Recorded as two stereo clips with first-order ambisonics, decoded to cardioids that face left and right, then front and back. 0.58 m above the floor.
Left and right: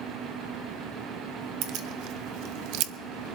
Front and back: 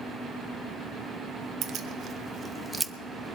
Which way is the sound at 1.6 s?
125° right.